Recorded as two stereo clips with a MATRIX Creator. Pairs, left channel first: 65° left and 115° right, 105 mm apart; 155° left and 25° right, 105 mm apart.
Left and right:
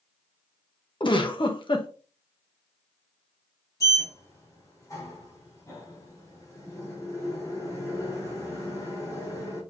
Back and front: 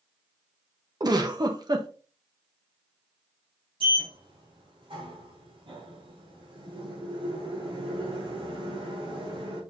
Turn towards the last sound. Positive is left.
turn(degrees=10)